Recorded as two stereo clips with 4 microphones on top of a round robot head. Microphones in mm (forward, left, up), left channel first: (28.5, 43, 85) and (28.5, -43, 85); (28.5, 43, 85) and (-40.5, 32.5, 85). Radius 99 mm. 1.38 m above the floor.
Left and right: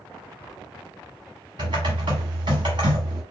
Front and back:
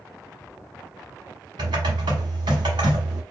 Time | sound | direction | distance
1.6 | typing on a keyboard | 140° right | 0.8 m